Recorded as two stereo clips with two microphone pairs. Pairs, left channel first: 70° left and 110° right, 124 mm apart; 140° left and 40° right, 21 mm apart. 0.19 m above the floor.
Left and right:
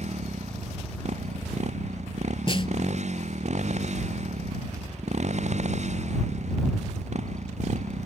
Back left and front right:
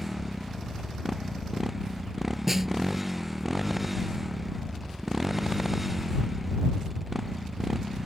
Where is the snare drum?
25° left.